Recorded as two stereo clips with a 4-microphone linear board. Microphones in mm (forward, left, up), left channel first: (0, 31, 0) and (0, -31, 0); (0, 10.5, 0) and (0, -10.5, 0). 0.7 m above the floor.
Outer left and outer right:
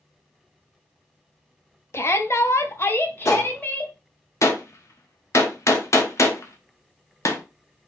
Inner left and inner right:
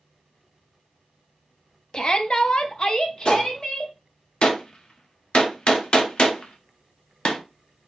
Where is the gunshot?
50° left (ahead or behind), 0.7 m.